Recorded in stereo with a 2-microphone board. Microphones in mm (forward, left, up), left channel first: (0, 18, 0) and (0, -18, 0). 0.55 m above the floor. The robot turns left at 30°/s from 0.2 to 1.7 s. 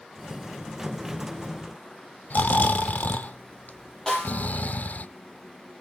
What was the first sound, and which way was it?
Snoring, 55° left (ahead or behind).